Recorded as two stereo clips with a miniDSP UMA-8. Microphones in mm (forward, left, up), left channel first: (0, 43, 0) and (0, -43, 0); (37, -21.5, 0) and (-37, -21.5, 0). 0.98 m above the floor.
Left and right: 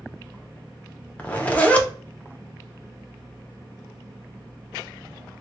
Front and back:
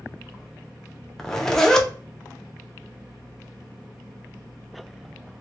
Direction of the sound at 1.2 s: 65° left.